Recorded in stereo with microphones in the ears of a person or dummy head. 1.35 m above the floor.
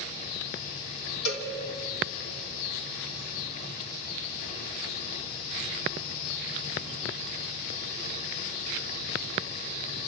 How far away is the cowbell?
About 3.5 m.